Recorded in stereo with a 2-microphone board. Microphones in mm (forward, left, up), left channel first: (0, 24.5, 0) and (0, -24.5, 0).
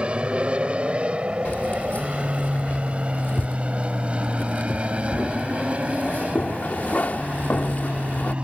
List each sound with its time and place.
0.0 s an aircraft: 20° right (ahead or behind); by 8.4 s 25° right (ahead or behind)
1.4 s keys jangling: 35° left (ahead or behind)